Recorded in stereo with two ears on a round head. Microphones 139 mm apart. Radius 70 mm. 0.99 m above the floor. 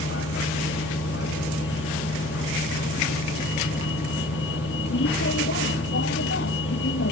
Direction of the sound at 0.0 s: 80° left.